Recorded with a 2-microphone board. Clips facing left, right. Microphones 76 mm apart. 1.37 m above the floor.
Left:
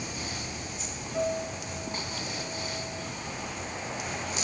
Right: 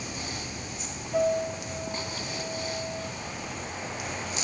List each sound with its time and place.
1.1 s a piano: 65° right (ahead or behind), 4.5 m